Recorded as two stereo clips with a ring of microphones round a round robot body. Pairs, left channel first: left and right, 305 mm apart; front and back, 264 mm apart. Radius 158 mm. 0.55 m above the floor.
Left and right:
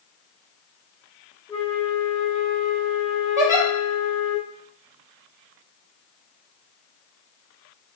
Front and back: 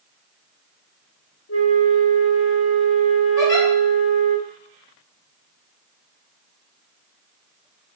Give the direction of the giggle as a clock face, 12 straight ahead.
12 o'clock.